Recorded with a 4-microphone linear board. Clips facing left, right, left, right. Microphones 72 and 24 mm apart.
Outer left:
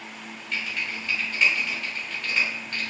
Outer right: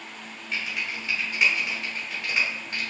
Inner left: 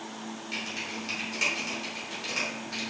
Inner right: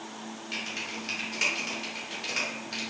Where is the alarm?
I don't hear an alarm.